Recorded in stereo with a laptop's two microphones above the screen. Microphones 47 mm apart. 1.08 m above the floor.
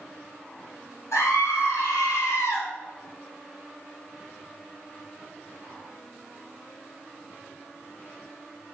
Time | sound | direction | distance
1.1 | a scream | 80° left | 3.5 m